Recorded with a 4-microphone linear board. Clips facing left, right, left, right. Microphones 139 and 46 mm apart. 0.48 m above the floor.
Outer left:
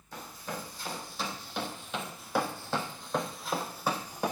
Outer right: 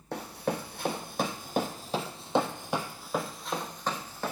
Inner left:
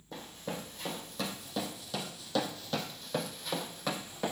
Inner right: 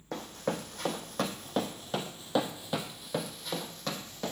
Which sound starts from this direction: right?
Running footsteps, at 0.1 s.